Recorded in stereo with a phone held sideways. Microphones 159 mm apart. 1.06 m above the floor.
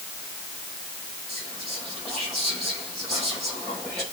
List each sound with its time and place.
1.3 s whispering: centre (ahead or behind), 8 m